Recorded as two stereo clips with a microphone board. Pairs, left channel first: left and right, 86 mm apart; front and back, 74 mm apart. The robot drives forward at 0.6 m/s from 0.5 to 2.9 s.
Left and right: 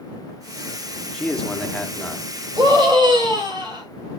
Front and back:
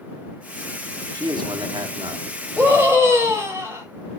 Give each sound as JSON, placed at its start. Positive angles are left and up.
{"t": 1.1, "sound": "a man speaking", "azimuth_deg": 170, "distance_m": 1.1}
{"t": 2.6, "sound": "a scream", "azimuth_deg": -115, "distance_m": 4.0}